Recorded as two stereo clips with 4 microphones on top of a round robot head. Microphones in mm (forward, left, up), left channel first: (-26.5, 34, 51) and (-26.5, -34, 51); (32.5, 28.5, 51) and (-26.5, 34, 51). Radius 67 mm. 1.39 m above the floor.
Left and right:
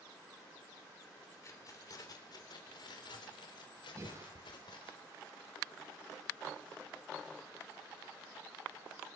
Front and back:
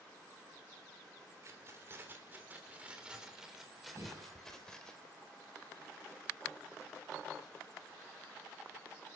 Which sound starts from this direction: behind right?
Breathing, at 4.0 s.